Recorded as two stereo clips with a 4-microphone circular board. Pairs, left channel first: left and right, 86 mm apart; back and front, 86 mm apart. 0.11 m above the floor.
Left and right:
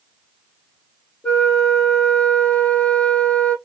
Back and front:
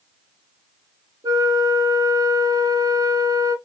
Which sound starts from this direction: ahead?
A flute, at 1.2 s.